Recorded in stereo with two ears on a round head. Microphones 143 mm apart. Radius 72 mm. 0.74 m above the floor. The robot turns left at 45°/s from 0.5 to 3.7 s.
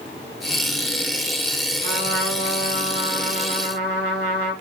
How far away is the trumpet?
About 2 m.